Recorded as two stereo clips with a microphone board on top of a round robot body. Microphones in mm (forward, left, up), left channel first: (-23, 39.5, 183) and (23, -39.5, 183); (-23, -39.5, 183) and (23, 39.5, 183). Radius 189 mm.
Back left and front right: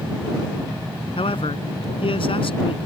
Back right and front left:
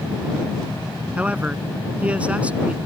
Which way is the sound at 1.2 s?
135° left.